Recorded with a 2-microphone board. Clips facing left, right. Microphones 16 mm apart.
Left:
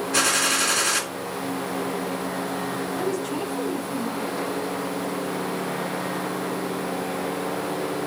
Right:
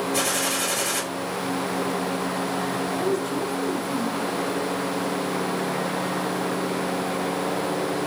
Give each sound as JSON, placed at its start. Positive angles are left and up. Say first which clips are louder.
{"t": 0.1, "sound": "a gunshot", "louder": "left 6 dB", "side_deg": 60, "distance_m": 2.0}
{"t": 3.0, "sound": "a woman speaking", "louder": "right 2 dB", "side_deg": 60, "distance_m": 3.0}